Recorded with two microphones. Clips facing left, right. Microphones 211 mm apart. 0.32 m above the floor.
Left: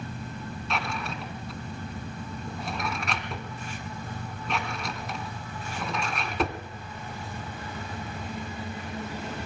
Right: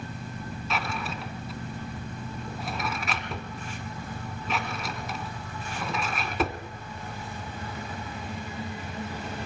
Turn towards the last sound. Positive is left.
turn(degrees=0)  # may be behind; listen again after turning